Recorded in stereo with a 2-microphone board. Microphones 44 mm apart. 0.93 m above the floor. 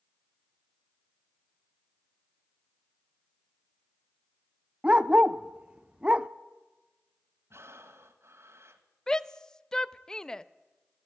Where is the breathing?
75° right (ahead or behind), 1.7 m.